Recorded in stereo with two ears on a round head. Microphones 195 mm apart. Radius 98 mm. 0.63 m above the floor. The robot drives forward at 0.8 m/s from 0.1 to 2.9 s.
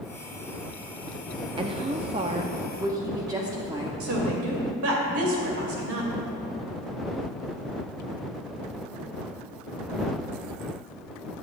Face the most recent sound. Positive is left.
turn(degrees=-70)  # may be behind; listen again after turning